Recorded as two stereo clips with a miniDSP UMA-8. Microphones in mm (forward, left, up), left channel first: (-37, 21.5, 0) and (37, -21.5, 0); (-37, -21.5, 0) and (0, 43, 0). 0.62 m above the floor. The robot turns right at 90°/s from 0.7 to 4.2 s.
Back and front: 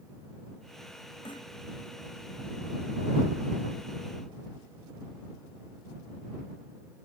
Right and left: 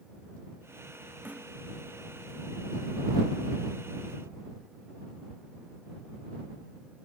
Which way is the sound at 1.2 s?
130° left.